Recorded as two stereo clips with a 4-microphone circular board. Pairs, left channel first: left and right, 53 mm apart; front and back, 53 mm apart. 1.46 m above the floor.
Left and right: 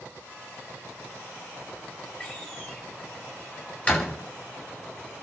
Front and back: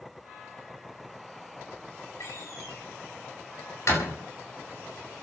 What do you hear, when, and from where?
2.2 s a door slam: 25° left, 8.5 m